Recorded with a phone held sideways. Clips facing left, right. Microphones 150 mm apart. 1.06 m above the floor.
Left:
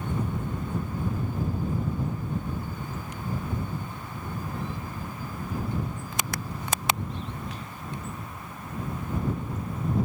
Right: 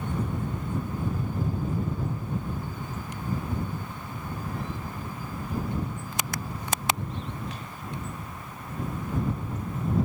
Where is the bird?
I don't hear a bird.